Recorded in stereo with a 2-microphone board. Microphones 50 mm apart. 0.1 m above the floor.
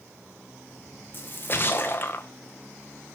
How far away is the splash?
About 1.4 m.